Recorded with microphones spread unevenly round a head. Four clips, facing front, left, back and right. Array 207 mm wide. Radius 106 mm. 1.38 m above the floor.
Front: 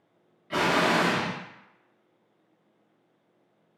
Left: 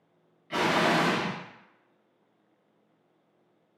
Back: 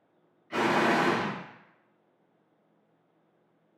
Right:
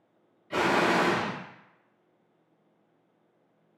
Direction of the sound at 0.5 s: 15° left.